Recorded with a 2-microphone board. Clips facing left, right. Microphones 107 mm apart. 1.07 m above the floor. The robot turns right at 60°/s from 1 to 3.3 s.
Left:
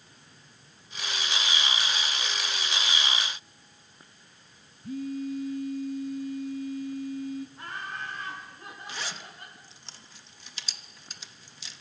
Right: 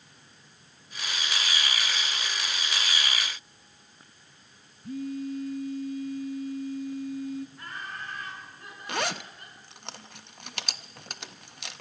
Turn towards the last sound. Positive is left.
turn(degrees=-65)  # may be behind; listen again after turning